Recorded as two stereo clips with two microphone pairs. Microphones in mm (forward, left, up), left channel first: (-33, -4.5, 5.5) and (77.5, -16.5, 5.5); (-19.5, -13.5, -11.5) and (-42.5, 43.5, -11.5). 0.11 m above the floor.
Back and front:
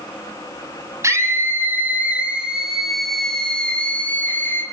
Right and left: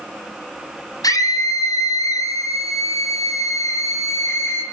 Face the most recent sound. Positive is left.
turn(degrees=-115)